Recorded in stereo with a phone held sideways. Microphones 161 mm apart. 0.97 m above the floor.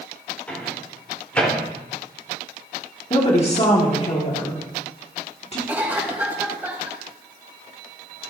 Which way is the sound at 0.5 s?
10° left (ahead or behind).